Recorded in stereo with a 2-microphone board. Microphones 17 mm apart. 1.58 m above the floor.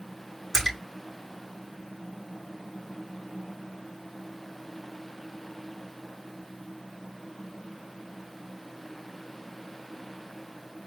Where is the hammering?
I don't hear hammering.